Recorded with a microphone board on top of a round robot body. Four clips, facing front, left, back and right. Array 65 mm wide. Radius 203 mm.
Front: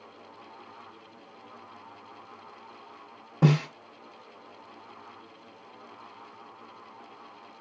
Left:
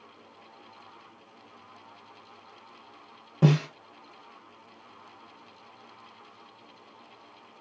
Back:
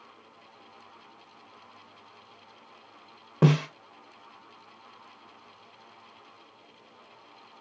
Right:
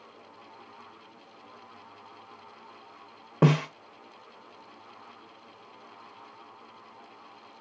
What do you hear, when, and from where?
3.4 s a snare drum: 115° right, 0.5 m